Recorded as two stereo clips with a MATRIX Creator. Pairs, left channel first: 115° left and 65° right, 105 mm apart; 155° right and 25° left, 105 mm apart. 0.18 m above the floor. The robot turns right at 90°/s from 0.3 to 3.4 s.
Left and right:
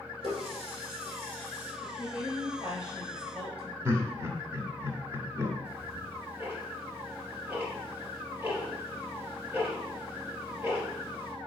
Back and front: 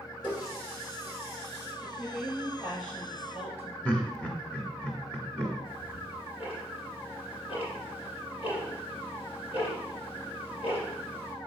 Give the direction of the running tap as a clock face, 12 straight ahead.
2 o'clock.